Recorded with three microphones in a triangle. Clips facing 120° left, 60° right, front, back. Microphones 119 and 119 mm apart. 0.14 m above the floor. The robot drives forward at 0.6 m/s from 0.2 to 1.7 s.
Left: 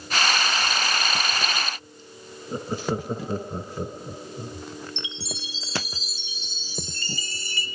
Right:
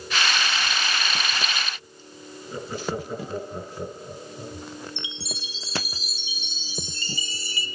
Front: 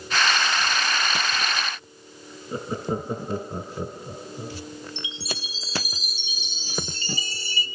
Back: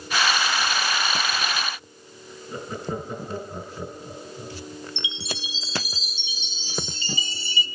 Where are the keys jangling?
No keys jangling in this recording.